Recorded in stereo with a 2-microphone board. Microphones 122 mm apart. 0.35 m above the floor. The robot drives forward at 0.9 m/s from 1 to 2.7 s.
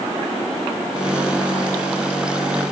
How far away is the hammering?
No hammering in this recording.